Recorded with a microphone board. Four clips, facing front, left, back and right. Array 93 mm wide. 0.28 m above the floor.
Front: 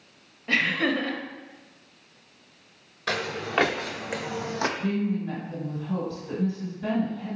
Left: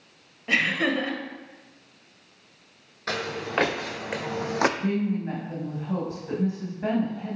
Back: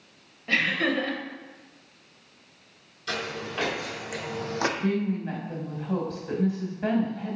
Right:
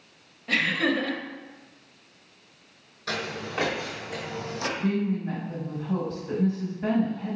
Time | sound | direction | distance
0.5 | laughter | 85° left | 0.9 m
3.1 | footsteps | 35° left | 1.3 m
4.8 | a woman speaking | 165° left | 1.8 m